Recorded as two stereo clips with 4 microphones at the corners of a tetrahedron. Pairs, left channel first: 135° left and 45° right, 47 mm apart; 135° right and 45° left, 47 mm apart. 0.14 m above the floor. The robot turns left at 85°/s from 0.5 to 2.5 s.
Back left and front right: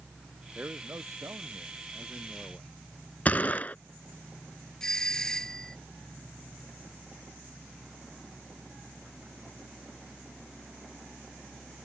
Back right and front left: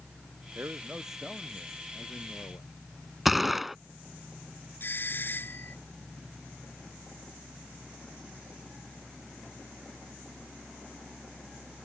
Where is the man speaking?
10° left; by 2.7 s 155° right.